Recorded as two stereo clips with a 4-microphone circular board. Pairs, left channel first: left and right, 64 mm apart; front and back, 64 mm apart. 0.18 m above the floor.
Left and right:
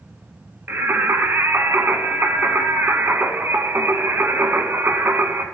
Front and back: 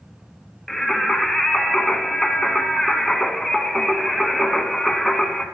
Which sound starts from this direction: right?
Singing, at 0.7 s.